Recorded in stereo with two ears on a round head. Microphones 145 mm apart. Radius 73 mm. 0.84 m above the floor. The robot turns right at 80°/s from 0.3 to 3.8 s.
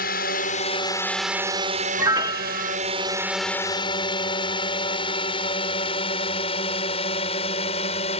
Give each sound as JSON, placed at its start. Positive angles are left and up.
{"t": 0.0, "sound": "a drone", "side_deg": 60}
{"t": 2.0, "sound": "a piano", "side_deg": -20}